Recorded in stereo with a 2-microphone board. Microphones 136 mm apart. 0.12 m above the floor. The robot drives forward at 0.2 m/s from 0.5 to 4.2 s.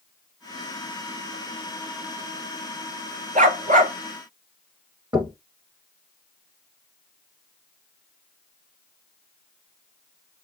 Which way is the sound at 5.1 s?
30° right (ahead or behind).